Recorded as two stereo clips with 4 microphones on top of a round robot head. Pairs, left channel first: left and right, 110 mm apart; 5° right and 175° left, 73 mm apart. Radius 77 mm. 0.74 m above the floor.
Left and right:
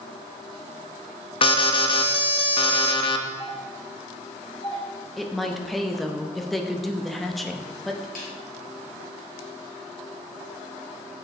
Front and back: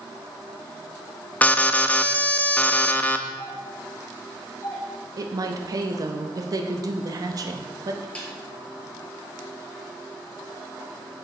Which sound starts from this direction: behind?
A woman speaking, at 5.2 s.